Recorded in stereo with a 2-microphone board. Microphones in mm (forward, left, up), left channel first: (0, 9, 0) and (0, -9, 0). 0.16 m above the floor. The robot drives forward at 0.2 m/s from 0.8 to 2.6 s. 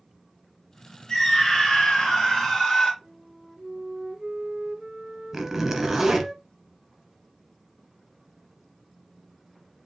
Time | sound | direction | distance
1.1 | a scream | 40° left (ahead or behind) | 2.5 m
3.0 | a flute | 30° right (ahead or behind) | 2.5 m
5.3 | a zipper | 25° right (ahead or behind) | 1.2 m